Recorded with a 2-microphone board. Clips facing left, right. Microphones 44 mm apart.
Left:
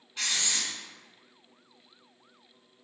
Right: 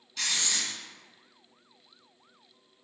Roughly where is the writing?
Left.